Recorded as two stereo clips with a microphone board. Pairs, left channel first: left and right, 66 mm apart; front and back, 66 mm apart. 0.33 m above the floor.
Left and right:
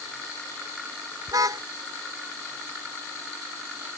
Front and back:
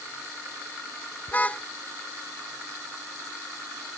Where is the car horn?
65° right.